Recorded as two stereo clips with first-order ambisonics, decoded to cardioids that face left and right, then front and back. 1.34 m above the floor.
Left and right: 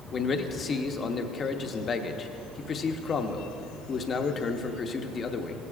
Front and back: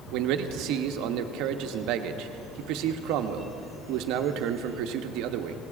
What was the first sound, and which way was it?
A man speaking, 155° left.